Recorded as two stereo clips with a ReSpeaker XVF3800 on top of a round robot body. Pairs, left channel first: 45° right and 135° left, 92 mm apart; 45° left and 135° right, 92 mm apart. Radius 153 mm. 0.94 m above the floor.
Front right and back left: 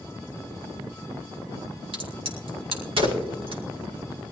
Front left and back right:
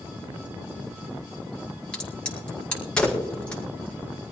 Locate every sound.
1.9 s a crack: 125° left, 4.5 m